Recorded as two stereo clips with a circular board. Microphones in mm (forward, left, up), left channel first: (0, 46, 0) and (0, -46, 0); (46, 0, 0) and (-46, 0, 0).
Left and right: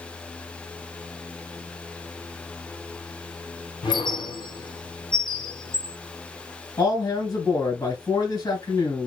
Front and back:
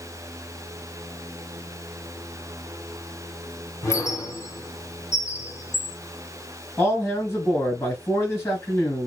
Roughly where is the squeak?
Ahead left.